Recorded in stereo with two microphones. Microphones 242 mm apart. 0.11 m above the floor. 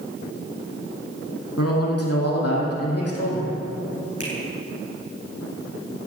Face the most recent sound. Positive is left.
turn(degrees=65)  # may be behind; listen again after turning